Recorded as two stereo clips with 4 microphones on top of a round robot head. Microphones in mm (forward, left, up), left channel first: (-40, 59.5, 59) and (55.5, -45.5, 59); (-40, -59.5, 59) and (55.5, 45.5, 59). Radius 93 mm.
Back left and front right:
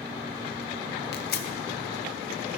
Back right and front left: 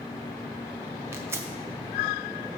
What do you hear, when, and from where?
1.1 s tearing paper: 120° left, 0.7 m